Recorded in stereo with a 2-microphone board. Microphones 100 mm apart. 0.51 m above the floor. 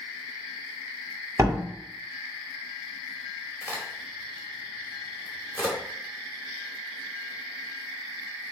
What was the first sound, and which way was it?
A door slam, 30° right (ahead or behind).